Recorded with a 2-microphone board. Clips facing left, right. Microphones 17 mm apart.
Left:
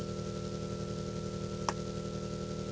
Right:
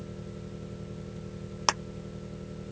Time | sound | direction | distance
0.0 | an engine running | 75° left (ahead or behind) | ?
1.7 | a clap | 65° right (ahead or behind) | ?